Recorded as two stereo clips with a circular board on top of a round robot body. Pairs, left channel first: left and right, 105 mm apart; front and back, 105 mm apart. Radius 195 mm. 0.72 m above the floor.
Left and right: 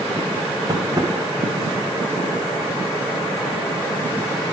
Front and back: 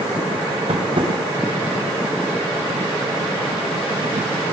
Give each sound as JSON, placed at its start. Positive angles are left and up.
{"t": 0.7, "sound": "tapping", "azimuth_deg": -145, "distance_m": 0.6}